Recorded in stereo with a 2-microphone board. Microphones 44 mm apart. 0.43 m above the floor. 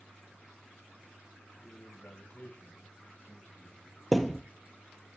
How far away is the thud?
About 0.8 m.